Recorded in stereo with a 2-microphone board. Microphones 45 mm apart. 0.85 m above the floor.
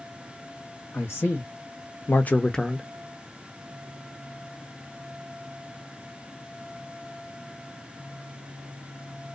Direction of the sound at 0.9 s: 70° left (ahead or behind).